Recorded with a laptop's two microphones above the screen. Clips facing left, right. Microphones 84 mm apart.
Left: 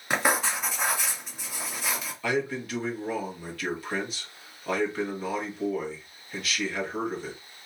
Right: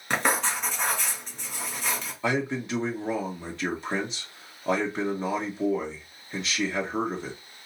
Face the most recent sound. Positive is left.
turn(degrees=-25)  # may be behind; listen again after turning